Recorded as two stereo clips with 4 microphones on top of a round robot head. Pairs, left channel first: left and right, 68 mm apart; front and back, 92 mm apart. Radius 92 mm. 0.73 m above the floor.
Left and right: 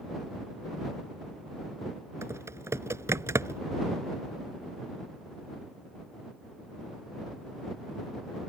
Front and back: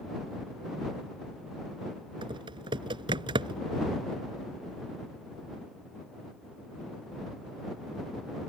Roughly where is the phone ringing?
I don't hear a phone ringing.